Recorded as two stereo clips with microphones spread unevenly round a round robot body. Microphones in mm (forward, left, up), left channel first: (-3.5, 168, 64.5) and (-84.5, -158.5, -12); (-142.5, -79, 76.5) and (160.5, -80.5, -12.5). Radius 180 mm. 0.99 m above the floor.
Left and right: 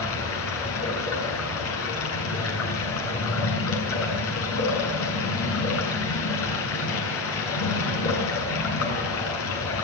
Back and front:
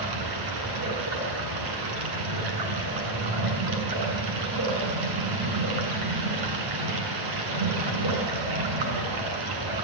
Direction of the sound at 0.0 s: 20° left.